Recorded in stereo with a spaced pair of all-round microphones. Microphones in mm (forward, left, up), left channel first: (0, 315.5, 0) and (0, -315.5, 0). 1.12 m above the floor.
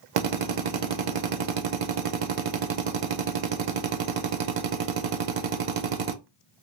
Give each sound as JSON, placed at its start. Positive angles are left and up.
{"t": 0.2, "sound": "a drill", "side_deg": -65, "distance_m": 0.6}